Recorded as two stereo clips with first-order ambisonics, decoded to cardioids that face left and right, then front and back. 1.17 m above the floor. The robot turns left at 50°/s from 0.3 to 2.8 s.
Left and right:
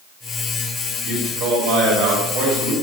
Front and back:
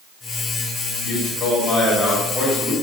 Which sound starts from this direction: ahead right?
A man speaking, at 1.0 s.